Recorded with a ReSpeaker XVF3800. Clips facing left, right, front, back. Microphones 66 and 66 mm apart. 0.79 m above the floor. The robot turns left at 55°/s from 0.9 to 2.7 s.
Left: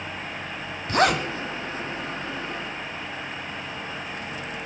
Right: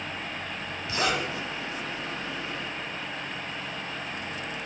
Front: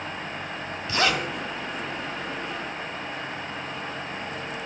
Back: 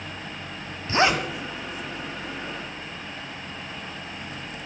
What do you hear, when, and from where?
0.9 s a zipper: 125° left, 1.5 m; by 1.3 s 105° left, 1.5 m